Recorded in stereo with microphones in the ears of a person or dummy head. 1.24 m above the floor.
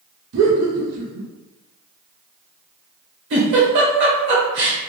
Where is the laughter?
65° right (ahead or behind), 0.8 m.